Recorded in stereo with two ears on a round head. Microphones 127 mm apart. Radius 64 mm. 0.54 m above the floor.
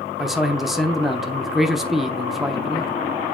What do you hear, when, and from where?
0.2 s a man speaking: centre (ahead or behind), 0.7 m